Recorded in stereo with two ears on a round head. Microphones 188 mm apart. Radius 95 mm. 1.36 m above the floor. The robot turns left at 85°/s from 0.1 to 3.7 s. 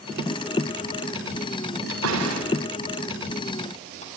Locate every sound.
1.9 s a door slam: 60° right (ahead or behind), 8 m; by 4.1 s 35° left (ahead or behind), 8 m